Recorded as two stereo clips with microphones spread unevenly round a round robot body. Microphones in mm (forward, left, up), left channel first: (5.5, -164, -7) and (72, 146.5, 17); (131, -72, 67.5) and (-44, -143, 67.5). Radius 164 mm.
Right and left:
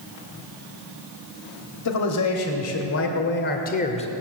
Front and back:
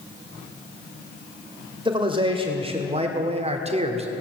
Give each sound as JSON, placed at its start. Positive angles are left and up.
{"t": 1.9, "sound": "a man speaking", "azimuth_deg": -100, "distance_m": 2.0}